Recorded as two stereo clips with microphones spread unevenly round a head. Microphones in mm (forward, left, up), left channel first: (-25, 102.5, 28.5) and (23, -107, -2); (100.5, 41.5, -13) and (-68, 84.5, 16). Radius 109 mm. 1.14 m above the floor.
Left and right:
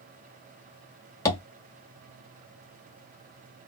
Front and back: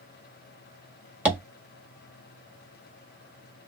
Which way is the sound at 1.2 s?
125° left.